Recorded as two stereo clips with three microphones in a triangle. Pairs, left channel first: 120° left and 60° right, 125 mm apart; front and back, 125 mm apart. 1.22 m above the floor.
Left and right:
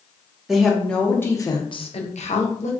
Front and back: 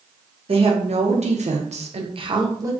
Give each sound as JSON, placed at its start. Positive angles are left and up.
{"t": 0.5, "sound": "a woman speaking", "azimuth_deg": -145, "distance_m": 1.0}